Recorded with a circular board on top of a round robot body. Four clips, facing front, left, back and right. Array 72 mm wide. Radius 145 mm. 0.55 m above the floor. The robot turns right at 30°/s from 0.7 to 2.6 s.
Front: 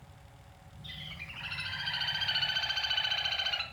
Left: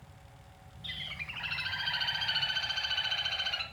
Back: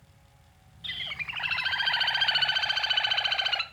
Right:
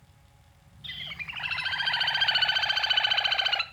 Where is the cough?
I don't hear a cough.